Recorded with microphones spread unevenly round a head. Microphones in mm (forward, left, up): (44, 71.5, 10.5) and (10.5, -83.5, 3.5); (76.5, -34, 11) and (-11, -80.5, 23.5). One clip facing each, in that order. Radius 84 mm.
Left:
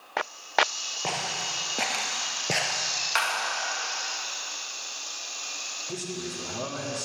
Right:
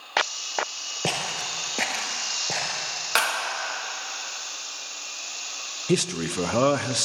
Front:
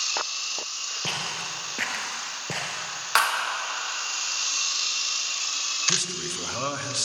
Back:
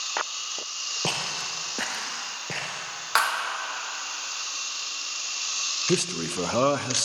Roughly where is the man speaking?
Behind right.